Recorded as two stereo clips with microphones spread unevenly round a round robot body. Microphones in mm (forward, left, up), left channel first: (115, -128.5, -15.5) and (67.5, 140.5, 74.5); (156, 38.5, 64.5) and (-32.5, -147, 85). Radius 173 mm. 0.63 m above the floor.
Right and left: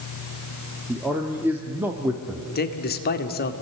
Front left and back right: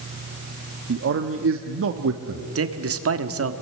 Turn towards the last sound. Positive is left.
turn(degrees=-110)